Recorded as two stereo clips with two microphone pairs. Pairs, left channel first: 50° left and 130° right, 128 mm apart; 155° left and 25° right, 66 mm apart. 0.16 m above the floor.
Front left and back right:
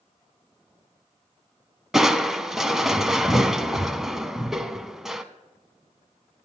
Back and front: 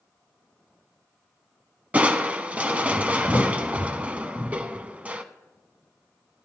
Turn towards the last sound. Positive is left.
turn(degrees=-45)